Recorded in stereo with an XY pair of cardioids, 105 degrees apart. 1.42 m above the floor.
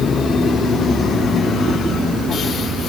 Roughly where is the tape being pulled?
I don't hear tape being pulled.